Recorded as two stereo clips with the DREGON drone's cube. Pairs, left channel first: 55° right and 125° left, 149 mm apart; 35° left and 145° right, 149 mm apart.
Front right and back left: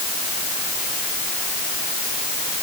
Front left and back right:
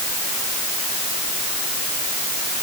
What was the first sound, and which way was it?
Only background noise.